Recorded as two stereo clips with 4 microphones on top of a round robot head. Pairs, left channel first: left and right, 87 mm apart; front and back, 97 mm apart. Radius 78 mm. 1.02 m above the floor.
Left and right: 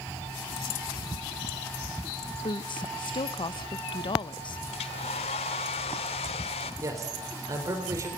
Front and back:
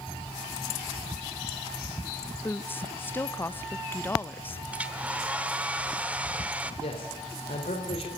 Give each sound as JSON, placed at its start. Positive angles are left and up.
{"t": 2.4, "sound": "a woman speaking", "azimuth_deg": 70, "distance_m": 0.9}
{"t": 4.7, "sound": "a hair dryer", "azimuth_deg": 105, "distance_m": 1.1}
{"t": 6.8, "sound": "a man speaking", "azimuth_deg": -35, "distance_m": 4.0}